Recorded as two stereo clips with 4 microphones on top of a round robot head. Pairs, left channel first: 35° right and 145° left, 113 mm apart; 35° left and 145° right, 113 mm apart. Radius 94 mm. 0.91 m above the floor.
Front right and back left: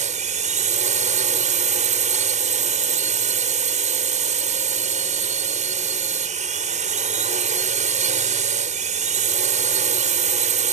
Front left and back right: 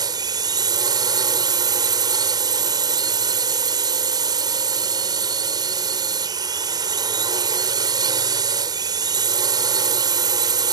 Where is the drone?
155° left.